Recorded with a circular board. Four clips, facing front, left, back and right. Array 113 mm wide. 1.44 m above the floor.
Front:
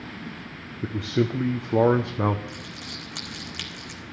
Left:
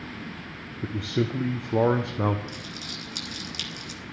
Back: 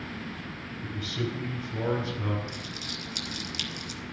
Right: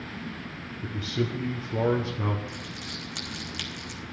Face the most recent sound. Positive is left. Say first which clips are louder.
# even, even
turn(degrees=-30)